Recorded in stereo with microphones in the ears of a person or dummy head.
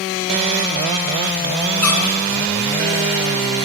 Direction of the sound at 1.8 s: 10° left (ahead or behind).